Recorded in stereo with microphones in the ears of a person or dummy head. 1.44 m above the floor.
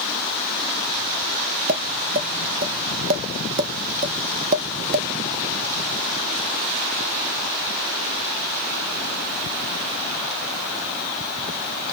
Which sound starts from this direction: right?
Tapping, at 1.7 s.